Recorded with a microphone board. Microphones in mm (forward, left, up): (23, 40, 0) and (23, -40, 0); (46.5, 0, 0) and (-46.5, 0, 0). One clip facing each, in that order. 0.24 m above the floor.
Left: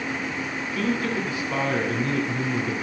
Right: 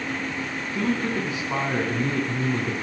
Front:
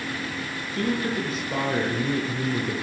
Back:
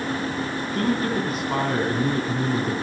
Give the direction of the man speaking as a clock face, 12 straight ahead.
5 o'clock.